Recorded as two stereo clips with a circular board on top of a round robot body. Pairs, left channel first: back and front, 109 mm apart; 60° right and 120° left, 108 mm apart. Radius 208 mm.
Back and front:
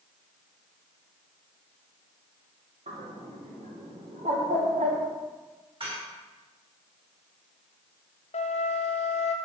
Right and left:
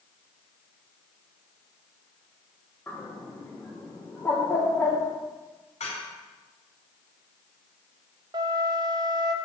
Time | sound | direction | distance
2.9 | a bird | 10° left | 2.5 m
5.8 | dishes clattering | 40° right | 4 m
8.3 | a flute | 170° left | 1.0 m